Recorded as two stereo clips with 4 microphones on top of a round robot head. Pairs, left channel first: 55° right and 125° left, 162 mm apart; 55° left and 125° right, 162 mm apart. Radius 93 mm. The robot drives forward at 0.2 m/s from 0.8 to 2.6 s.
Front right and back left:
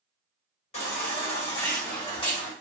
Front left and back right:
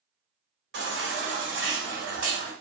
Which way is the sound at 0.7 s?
105° right.